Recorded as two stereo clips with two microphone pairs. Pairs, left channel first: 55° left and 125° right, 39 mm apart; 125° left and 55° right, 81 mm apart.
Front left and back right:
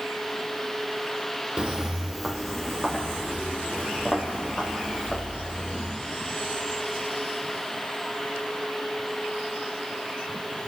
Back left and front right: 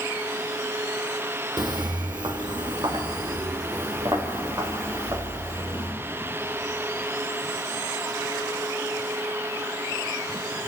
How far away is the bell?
I don't hear a bell.